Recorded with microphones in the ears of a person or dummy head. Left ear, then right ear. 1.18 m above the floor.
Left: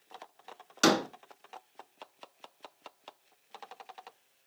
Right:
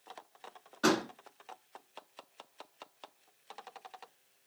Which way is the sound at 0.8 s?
80° left.